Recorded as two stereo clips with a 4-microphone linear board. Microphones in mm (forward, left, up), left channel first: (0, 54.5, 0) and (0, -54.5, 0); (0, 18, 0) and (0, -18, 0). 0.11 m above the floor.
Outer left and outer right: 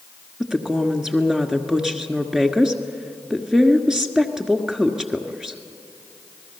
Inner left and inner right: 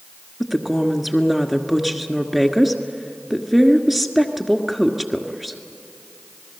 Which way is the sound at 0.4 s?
5° right (ahead or behind).